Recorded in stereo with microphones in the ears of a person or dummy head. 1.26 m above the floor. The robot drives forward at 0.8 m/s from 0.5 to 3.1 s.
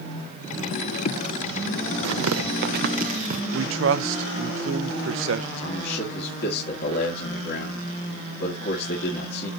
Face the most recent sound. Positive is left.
turn(degrees=55)  # may be behind; listen again after turning